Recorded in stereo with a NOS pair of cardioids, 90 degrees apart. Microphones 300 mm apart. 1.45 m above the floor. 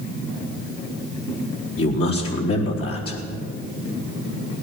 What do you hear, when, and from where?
1.8 s a man speaking: 50° left, 4 m